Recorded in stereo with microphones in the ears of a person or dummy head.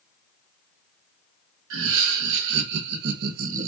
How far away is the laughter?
About 1.9 m.